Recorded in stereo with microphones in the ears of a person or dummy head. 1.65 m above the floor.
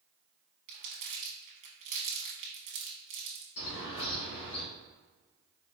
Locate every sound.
0.7 s crumpling: 30° right (ahead or behind), 0.9 m
3.6 s a bird: 75° left (ahead or behind), 1.8 m